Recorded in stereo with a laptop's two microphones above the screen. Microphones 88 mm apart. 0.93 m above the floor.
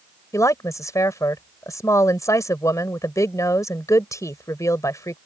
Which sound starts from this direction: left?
A woman speaking, at 0.3 s.